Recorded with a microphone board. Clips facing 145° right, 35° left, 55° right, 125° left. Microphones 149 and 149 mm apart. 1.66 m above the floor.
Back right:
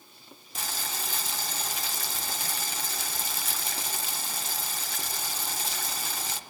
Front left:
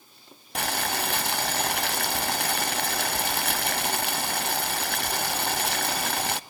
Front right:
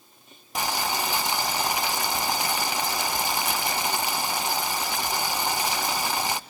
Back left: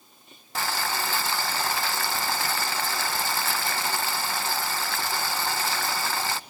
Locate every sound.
0.6 s boiling: 15° left, 0.5 m